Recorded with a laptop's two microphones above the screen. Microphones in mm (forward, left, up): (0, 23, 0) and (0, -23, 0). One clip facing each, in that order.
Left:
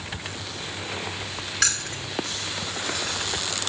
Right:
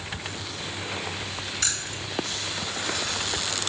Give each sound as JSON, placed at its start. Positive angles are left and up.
{"t": 1.6, "sound": "keys jangling", "side_deg": 85, "distance_m": 1.9}